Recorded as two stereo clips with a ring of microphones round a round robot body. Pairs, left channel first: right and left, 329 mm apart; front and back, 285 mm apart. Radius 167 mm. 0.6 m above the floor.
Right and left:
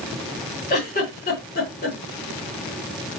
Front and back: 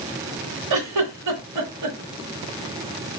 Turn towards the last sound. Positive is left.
turn(degrees=-150)